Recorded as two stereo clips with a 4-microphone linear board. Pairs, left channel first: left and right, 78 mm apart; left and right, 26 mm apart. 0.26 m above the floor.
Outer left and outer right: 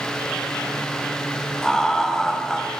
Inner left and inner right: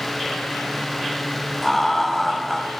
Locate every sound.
1.6 s laughter: 10° left (ahead or behind), 1.2 m